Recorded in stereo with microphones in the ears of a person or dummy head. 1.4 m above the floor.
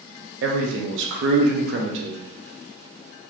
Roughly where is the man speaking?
Right.